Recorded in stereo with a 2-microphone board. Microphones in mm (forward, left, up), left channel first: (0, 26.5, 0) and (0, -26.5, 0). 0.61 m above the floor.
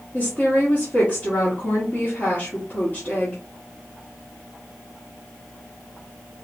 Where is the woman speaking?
45° left (ahead or behind), 1.7 m.